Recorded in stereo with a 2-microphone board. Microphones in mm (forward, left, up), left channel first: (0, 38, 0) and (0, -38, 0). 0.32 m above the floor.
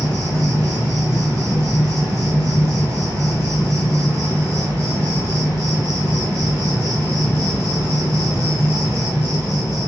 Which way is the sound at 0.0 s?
50° right (ahead or behind).